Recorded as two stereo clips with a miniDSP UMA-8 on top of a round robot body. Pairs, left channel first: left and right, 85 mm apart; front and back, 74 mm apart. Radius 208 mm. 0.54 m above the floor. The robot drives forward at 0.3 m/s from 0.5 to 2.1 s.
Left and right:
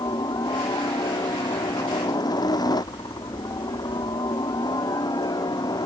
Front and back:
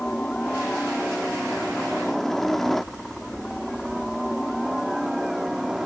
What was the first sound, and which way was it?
A helicopter, 75° left.